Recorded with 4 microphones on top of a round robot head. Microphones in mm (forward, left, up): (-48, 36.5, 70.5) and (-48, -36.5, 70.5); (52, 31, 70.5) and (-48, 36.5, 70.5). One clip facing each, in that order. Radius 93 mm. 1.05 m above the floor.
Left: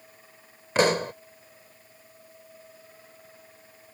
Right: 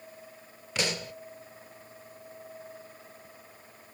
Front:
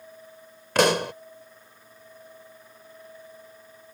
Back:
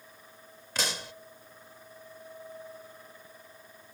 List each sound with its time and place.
0.8 s a pop: 30° left